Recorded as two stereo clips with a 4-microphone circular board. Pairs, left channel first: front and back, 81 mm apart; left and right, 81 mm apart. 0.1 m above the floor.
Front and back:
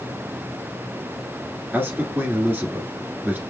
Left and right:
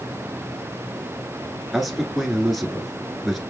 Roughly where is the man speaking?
Behind.